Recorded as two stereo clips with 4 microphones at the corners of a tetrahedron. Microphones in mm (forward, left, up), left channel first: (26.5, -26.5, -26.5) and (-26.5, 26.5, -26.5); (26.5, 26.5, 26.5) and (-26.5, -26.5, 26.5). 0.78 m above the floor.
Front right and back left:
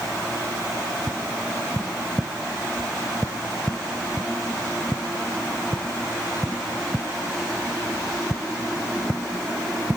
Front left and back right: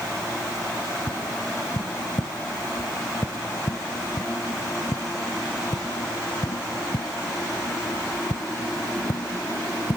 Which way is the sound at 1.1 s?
55° left.